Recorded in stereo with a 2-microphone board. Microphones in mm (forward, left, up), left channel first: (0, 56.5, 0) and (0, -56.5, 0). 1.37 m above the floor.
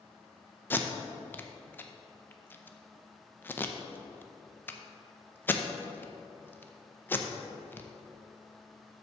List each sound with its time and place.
0.7 s tape being pulled: 15° left (ahead or behind), 0.6 m